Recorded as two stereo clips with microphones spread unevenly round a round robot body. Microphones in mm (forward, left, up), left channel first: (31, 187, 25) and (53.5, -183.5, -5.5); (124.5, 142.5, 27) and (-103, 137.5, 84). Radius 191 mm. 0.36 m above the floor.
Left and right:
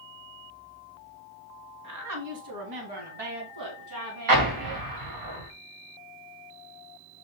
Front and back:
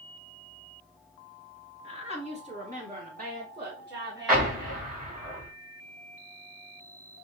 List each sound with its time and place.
1.8 s a woman speaking: 50° right, 3 m; by 4.9 s 100° right, 4.5 m
4.3 s an explosion: 80° right, 2 m